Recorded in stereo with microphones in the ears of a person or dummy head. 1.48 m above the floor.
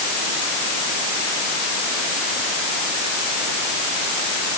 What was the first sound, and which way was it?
Only background noise.